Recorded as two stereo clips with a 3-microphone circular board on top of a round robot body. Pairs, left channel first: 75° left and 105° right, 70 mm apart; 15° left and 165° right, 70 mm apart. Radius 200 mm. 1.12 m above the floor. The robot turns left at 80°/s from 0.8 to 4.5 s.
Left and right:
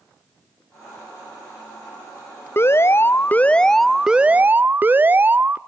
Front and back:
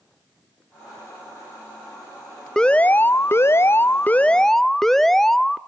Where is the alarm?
90° left, 0.8 m; by 5.6 s 65° right, 0.8 m.